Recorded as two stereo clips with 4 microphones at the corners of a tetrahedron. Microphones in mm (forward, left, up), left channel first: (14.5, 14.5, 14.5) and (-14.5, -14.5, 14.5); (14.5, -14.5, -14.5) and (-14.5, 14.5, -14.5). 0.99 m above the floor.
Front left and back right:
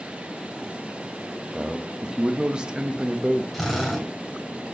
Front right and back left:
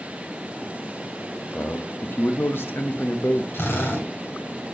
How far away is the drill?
About 3 m.